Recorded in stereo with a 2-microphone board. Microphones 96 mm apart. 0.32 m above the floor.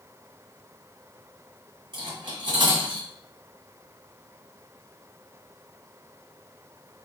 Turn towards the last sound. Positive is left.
turn(degrees=-60)  # may be behind; listen again after turning